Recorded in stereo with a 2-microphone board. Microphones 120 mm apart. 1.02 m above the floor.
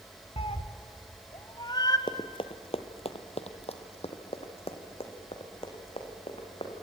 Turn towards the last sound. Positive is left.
turn(degrees=50)  # may be behind; listen again after turning